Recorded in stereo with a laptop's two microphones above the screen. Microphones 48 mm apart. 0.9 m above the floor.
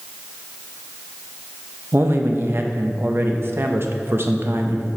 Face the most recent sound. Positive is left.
turn(degrees=-50)  # may be behind; listen again after turning